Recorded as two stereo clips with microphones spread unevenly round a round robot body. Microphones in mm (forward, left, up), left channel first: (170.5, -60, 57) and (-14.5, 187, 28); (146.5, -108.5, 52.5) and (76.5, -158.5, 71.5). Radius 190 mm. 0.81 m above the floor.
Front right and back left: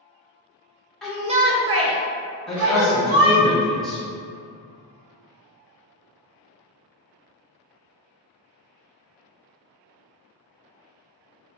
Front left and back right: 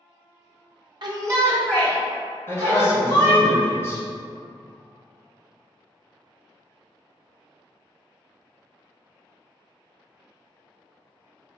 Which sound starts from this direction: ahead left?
A man speaking, at 2.5 s.